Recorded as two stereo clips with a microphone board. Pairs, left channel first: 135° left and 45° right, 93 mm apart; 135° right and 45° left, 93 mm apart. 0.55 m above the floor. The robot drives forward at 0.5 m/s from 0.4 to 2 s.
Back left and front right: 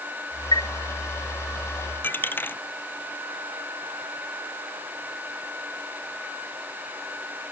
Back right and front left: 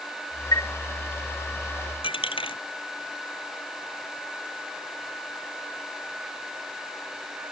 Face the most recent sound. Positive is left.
turn(degrees=-155)